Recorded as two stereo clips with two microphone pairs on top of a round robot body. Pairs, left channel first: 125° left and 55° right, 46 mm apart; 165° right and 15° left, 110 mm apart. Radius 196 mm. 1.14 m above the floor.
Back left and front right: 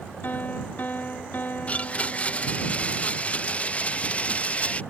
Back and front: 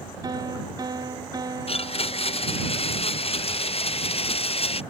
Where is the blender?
170° right.